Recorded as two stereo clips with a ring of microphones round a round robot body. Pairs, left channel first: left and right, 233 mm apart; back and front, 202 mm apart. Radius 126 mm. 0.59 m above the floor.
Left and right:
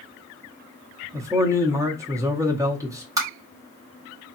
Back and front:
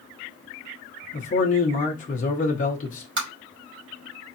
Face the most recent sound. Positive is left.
turn(degrees=-15)